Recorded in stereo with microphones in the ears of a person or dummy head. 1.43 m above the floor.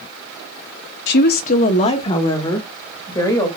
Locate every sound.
1.1 s a woman speaking: 60° left (ahead or behind), 0.6 m; by 3.5 s 15° left (ahead or behind), 3 m